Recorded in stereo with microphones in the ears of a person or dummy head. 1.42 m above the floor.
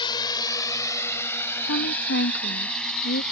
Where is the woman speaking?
70° left (ahead or behind).